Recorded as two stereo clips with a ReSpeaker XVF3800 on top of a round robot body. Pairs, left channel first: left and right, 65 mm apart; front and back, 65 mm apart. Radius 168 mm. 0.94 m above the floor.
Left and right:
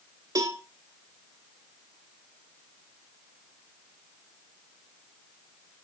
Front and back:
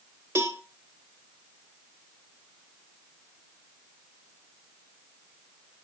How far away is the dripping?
No dripping in this recording.